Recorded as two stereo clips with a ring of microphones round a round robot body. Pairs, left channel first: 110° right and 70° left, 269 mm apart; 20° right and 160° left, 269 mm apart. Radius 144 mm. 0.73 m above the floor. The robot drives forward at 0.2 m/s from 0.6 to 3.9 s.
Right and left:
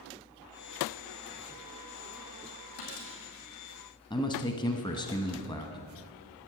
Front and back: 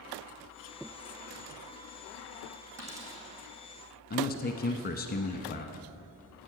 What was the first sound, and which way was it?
A dropped coin, 125° right.